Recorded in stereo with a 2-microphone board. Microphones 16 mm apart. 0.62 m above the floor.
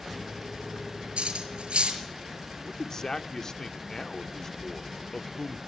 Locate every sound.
1.2 s cutlery clinking: 80° right, 6 m
2.6 s a man speaking: 30° left (ahead or behind), 1.2 m